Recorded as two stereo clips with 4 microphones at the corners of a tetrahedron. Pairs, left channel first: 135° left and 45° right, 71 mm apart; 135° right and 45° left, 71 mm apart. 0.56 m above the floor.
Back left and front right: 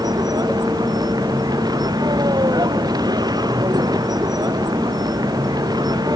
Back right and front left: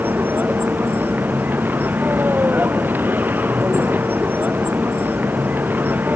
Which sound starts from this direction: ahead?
A vehicle, at 0.0 s.